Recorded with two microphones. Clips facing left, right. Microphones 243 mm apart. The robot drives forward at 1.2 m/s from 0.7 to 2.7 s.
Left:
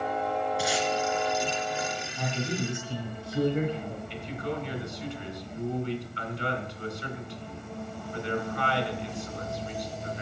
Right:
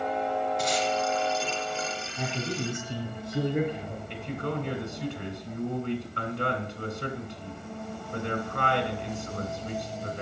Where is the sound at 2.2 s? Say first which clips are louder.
Even; 25° right (ahead or behind), 2.5 m; by 4.0 s 20° right (ahead or behind), 3 m.